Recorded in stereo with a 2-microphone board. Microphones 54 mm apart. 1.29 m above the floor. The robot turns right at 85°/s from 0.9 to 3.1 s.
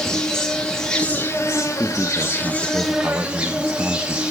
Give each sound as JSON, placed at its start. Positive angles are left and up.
{"t": 0.0, "sound": "an insect", "azimuth_deg": 15, "distance_m": 1.8}
{"t": 1.8, "sound": "a man speaking", "azimuth_deg": -165, "distance_m": 0.6}